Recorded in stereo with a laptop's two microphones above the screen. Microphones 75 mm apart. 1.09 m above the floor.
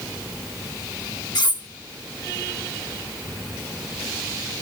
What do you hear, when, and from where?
1.4 s cutlery clinking: 65° left (ahead or behind), 3 m